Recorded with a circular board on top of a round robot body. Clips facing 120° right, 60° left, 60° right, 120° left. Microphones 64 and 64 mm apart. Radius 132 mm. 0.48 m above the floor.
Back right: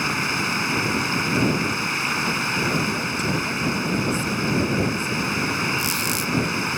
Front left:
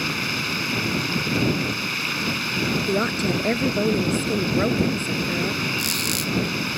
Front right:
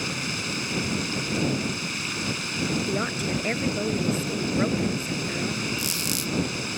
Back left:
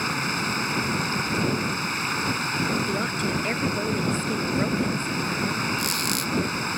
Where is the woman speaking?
25° left.